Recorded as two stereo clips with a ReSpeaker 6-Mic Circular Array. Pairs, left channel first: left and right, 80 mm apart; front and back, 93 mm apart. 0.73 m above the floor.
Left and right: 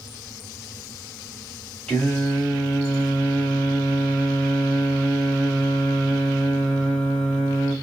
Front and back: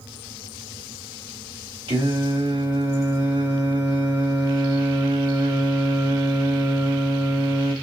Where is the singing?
165° left, 1.4 m.